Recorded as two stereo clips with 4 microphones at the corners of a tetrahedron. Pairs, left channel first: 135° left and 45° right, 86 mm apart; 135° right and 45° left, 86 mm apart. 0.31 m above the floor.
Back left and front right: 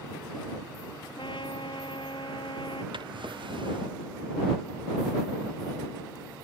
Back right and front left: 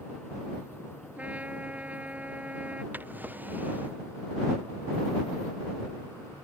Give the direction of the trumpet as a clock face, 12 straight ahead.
8 o'clock.